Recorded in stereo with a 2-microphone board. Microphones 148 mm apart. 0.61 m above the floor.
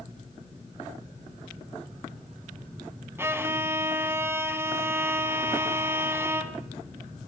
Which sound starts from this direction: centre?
A violin, at 3.2 s.